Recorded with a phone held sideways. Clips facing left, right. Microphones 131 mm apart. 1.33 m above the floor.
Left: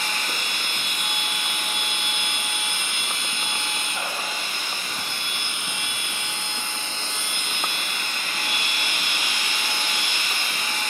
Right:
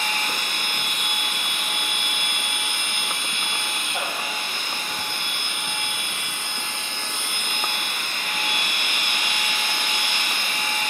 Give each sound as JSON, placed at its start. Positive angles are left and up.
{"t": 0.0, "sound": "a machine running", "side_deg": -55, "distance_m": 1.2}